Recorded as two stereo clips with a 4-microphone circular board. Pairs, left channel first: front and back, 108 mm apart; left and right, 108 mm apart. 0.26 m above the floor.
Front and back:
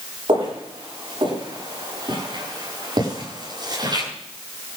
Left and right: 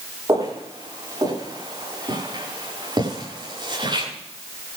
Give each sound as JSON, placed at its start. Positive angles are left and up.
{"t": 0.3, "sound": "footsteps", "azimuth_deg": -145, "distance_m": 10.0}